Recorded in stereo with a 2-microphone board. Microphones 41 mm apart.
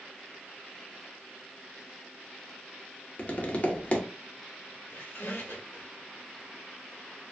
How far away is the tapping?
About 0.5 m.